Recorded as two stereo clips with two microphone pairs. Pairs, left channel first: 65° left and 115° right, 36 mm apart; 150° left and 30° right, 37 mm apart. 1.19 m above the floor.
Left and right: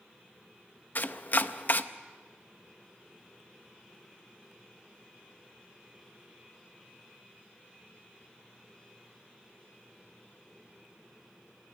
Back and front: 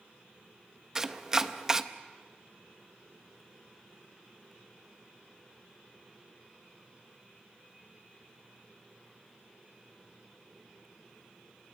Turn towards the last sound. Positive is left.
turn(degrees=40)